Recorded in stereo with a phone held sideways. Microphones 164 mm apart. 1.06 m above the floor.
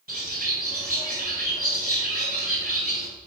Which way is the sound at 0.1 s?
70° right (ahead or behind).